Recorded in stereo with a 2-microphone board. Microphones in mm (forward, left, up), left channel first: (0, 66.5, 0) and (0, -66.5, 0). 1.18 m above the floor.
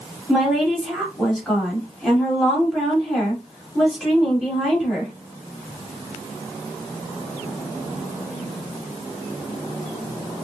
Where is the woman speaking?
Centre (ahead or behind), 3 m.